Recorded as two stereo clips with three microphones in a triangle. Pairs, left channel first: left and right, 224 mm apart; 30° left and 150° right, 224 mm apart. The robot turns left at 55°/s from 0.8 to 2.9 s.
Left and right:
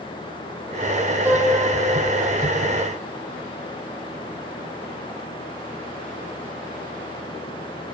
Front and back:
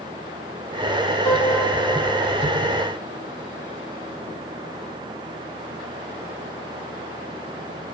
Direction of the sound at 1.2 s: 20° right.